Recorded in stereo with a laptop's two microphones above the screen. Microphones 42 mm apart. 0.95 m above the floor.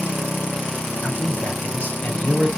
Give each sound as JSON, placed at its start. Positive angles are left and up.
{"t": 1.0, "sound": "a man speaking", "side_deg": 35, "distance_m": 2.5}